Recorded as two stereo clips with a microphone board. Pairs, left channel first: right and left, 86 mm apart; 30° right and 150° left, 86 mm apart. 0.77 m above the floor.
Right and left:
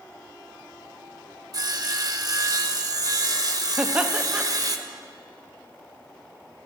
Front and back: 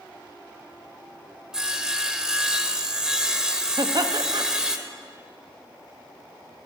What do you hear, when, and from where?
1.5 s sawing: 75° left, 0.6 m
3.8 s laughter: 160° left, 0.6 m